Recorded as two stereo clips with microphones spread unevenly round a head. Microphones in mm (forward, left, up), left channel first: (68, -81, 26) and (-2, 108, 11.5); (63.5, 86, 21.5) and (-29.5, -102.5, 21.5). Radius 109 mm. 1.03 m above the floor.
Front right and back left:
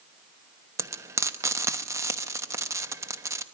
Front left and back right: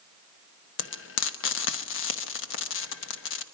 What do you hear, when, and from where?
0.8 s frying: 35° left, 1.0 m